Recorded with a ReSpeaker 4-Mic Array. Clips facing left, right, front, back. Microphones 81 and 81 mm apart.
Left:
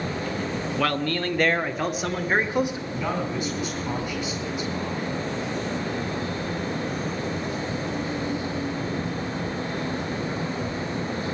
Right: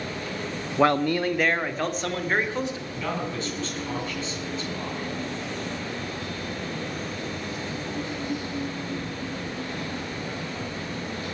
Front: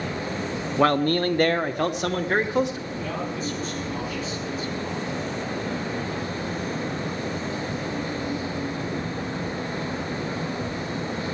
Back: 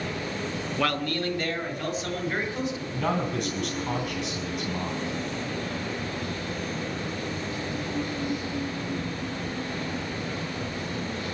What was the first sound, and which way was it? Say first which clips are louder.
A man speaking: right 6 dB, front 8 dB; 45° right.